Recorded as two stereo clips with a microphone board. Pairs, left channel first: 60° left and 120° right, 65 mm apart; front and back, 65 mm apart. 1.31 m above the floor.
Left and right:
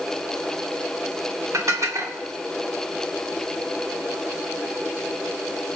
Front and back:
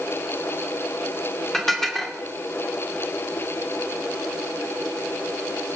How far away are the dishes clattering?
About 2.5 m.